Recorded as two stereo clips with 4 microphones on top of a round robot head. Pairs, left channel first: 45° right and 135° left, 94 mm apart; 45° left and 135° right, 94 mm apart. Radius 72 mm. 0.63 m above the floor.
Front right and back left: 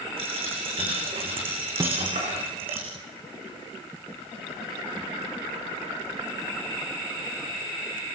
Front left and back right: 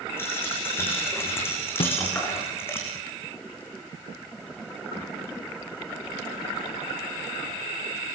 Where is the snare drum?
75° left, 0.5 m.